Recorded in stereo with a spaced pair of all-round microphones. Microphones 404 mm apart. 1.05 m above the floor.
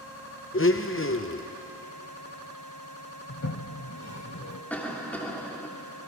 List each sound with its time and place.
0.5 s a blender: 30° left (ahead or behind), 0.8 m
3.3 s a toilet flushing: 45° left (ahead or behind), 1.1 m
4.7 s a cough: 5° left (ahead or behind), 2.5 m